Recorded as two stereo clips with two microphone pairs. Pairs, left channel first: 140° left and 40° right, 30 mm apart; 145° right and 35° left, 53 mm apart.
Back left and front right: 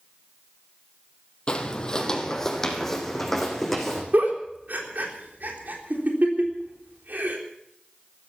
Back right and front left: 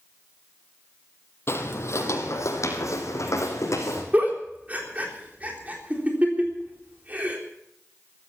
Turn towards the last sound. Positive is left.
turn(degrees=-25)